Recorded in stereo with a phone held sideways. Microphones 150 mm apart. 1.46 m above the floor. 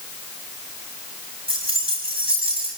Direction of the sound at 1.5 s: 35° right (ahead or behind).